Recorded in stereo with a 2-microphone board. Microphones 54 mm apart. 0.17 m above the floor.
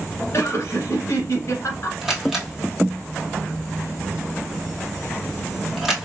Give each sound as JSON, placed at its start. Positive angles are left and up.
{"t": 0.3, "sound": "laughter", "side_deg": 50, "distance_m": 1.7}
{"t": 2.0, "sound": "a camera shutter", "side_deg": -5, "distance_m": 1.7}